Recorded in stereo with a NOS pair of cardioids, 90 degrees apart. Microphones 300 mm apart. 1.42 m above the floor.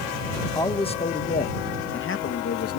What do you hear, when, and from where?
0.6 s a man speaking: 10° left; by 2.8 s 50° left